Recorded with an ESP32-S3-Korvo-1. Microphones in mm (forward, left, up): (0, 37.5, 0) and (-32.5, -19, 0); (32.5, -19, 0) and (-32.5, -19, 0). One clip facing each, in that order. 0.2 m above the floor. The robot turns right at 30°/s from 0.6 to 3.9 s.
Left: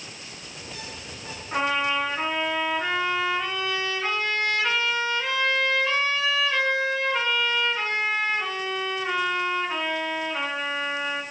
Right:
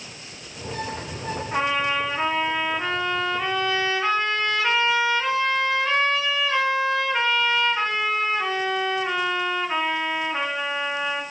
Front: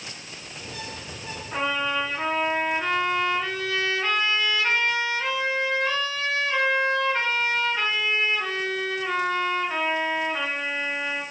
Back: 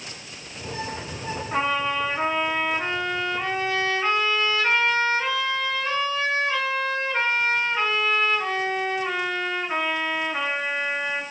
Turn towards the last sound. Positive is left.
turn(degrees=-145)